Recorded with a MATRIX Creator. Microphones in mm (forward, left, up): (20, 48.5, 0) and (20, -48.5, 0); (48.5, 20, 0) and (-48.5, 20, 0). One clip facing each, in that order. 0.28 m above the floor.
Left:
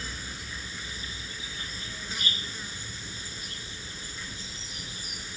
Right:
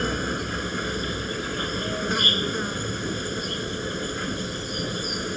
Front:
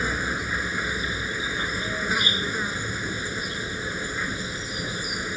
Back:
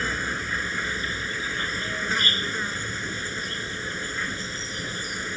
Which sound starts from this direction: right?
An insect, at 0.0 s.